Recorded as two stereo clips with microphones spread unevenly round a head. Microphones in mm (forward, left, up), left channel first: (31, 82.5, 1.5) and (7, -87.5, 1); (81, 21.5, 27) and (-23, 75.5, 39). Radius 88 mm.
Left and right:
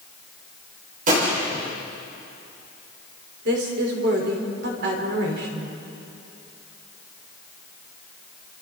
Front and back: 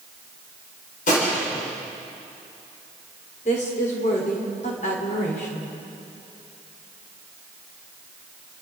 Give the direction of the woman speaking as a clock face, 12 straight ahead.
2 o'clock.